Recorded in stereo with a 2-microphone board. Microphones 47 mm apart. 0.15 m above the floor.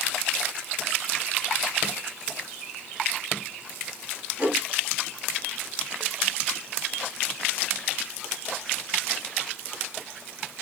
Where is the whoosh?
45° right (ahead or behind), 1.8 m.